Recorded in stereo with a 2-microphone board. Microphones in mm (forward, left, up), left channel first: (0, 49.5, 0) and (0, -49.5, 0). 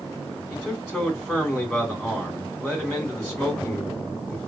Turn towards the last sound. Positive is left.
turn(degrees=-5)  # may be behind; listen again after turning